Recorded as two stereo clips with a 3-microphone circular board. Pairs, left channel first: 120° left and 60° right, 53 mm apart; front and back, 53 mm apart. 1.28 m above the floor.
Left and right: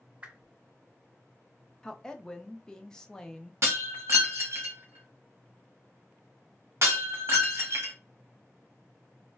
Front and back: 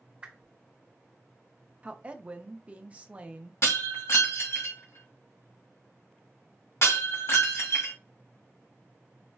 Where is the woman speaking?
175° left, 0.5 m.